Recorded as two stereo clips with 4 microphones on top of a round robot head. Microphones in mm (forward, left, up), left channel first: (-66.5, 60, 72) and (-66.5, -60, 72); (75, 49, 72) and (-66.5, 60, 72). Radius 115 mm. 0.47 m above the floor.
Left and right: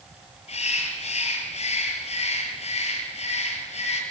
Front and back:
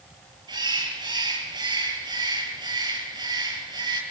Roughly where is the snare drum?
No snare drum in this recording.